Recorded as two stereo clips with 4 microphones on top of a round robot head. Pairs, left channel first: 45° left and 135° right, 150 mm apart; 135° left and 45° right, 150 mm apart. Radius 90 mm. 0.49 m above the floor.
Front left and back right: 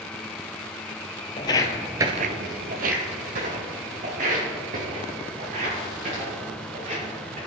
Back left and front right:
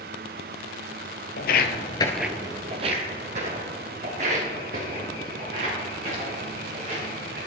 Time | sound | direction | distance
1.4 | footsteps | 105° left | 0.9 m